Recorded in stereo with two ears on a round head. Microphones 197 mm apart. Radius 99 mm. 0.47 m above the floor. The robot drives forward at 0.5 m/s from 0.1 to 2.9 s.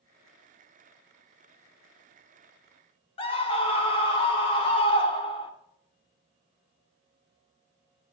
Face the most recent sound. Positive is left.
turn(degrees=25)  # may be behind; listen again after turning